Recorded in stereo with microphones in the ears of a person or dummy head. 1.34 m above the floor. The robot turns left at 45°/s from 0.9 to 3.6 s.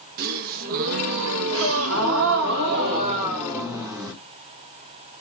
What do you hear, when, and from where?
0.2 s a gasp: 55° right, 0.6 m; by 2.5 s 130° right, 0.6 m
1.5 s a gasp: 70° right, 1.4 m; by 4.1 s 165° right, 1.4 m